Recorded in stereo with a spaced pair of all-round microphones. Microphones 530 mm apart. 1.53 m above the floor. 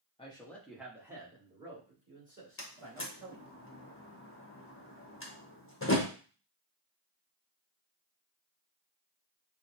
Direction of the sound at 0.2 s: 10° left (ahead or behind).